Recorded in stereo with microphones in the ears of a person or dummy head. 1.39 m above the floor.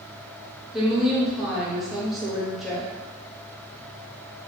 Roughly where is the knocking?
No knocking in this recording.